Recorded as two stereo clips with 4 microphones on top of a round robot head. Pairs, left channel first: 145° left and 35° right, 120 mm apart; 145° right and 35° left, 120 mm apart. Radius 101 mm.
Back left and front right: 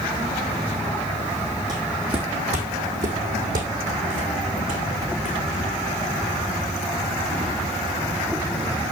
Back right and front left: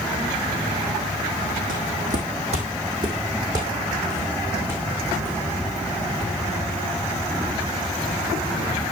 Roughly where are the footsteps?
Ahead.